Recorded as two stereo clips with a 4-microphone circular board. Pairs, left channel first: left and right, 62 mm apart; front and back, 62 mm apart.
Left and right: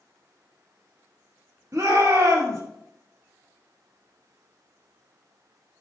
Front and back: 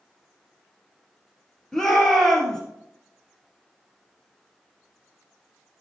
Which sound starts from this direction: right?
A shout, at 1.7 s.